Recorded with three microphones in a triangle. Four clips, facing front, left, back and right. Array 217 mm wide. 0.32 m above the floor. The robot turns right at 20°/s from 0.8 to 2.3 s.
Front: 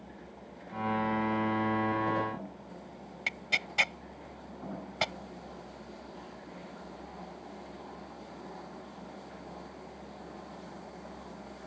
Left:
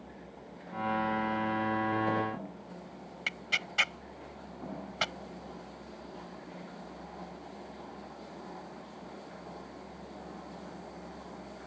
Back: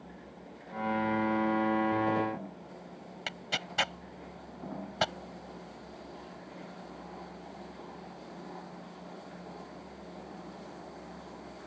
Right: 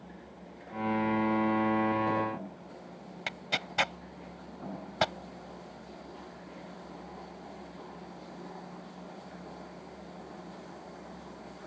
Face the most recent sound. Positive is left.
turn(degrees=-110)